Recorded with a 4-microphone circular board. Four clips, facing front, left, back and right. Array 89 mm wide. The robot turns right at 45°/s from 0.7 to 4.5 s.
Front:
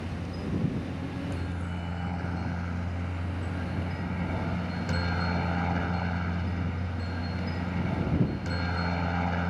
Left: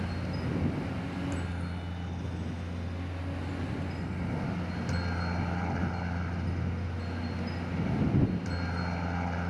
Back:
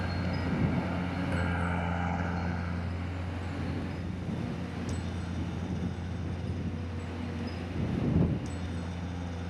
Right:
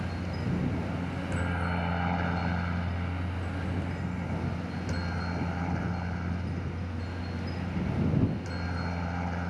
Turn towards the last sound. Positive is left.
turn(degrees=0)